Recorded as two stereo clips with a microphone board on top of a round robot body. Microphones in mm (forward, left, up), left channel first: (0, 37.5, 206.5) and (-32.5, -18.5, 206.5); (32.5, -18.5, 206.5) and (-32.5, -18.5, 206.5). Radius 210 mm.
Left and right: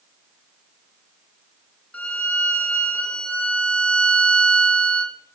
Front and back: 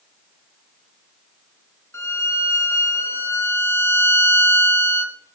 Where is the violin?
Straight ahead, 1.1 m.